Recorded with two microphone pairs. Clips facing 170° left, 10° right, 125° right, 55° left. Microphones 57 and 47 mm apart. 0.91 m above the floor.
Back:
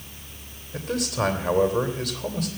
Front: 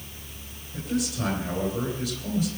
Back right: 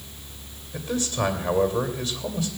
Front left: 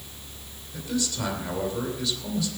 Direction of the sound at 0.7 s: 175° left.